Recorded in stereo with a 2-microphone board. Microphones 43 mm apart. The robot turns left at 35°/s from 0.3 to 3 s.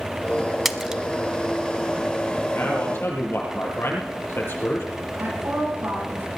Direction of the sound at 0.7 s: 5° right (ahead or behind).